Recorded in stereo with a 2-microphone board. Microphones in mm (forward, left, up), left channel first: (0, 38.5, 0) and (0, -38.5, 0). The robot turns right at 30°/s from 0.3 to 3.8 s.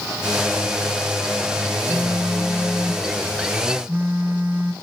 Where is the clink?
I don't hear a clink.